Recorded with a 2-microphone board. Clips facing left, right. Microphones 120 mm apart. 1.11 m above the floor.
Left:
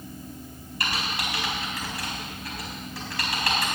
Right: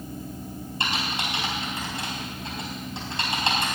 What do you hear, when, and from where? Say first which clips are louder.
0.8 s typing on a keyboard: right 1 dB; 25° right (ahead or behind), 4 m